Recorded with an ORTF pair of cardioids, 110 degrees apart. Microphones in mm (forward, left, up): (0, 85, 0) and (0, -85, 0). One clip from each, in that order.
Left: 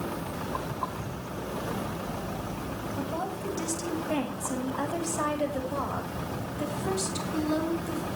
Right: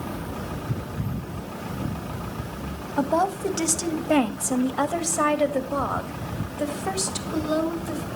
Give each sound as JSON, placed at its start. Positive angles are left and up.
{"t": 3.0, "sound": "a woman speaking", "azimuth_deg": -70, "distance_m": 1.6}